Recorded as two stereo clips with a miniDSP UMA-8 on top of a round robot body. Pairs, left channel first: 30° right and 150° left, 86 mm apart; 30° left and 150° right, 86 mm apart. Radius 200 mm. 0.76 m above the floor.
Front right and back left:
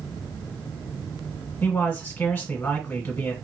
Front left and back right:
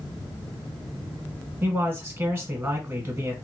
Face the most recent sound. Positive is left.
turn(degrees=-100)